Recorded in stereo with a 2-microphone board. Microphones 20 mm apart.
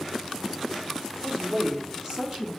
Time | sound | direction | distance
1.2 | a woman speaking | 40° right (ahead or behind) | 2 m